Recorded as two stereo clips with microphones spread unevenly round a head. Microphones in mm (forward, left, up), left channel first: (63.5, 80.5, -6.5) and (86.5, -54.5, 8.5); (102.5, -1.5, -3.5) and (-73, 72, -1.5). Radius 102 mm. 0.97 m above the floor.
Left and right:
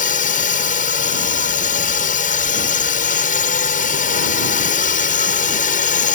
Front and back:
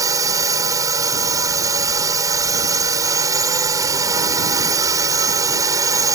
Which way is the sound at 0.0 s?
85° left.